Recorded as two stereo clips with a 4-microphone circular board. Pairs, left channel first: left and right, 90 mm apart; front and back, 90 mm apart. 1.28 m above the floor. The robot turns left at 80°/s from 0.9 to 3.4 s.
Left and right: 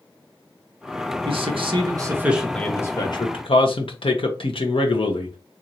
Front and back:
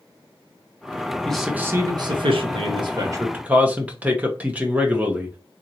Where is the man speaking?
80° right, 1.0 m; by 5.4 s 105° left, 1.0 m.